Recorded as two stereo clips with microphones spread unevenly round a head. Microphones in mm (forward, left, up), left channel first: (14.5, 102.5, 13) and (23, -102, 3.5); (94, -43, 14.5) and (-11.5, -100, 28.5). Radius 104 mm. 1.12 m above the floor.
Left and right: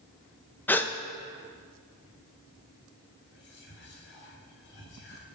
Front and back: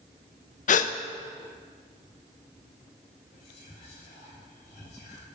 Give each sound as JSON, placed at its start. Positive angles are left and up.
{"t": 0.7, "sound": "a gasp", "azimuth_deg": 10, "distance_m": 0.5}
{"t": 3.3, "sound": "whispering", "azimuth_deg": 55, "distance_m": 2.5}